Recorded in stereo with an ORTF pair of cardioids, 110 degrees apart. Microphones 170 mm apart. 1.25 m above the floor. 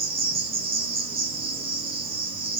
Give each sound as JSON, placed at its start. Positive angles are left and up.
{"t": 0.0, "sound": "an insect", "azimuth_deg": -30, "distance_m": 0.8}